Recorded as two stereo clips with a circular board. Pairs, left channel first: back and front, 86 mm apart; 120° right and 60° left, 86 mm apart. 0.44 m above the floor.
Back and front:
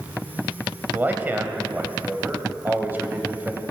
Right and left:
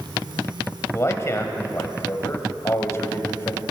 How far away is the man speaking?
About 1.7 m.